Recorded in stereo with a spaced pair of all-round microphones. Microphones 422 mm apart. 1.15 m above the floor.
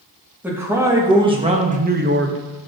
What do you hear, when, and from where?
0.4 s a man speaking: 5° right (ahead or behind), 1.5 m; by 2.7 s 45° right (ahead or behind), 0.6 m